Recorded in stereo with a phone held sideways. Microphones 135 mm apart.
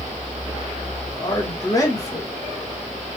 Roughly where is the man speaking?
Left.